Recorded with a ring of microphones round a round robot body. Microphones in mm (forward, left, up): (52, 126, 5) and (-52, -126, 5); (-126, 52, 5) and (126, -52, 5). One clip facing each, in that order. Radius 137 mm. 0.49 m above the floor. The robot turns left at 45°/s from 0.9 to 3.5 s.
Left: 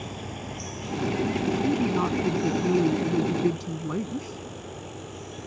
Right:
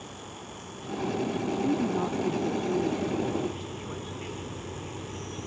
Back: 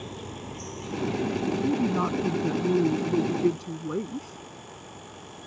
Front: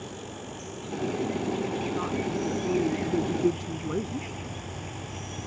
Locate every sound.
0.0 s an insect: 80° left; by 5.5 s 35° right
1.6 s a woman speaking: 155° left; by 4.4 s 70° left